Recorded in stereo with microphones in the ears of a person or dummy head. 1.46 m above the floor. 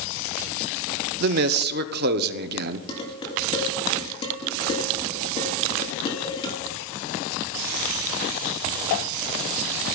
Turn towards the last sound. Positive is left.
turn(degrees=25)  # may be behind; listen again after turning